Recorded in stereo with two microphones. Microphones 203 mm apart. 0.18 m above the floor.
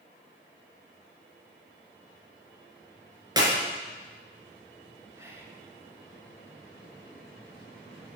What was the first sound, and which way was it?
A clap, 20° right (ahead or behind).